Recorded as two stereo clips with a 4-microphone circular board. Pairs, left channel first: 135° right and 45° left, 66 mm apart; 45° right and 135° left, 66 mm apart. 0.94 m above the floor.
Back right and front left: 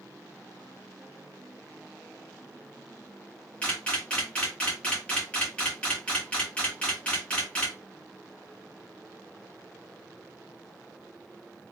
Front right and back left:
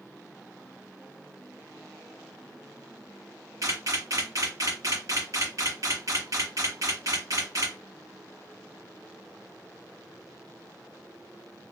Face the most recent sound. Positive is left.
turn(degrees=155)